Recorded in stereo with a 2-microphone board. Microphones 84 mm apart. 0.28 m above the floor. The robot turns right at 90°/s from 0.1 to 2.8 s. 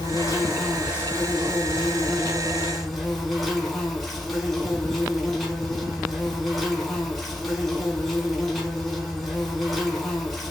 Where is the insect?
120° left, 1.0 m; by 10.5 s straight ahead, 1.0 m.